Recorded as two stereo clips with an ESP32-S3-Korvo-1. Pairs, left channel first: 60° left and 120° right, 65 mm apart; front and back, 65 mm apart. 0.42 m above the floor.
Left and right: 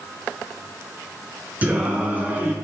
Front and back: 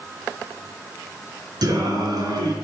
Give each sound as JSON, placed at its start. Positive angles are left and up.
{"t": 1.6, "sound": "singing", "azimuth_deg": 175, "distance_m": 2.5}